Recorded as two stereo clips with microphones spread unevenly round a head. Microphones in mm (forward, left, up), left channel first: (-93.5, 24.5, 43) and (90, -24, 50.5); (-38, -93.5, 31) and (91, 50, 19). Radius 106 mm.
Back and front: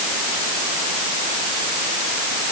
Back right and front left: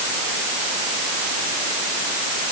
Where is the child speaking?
No child speaking in this recording.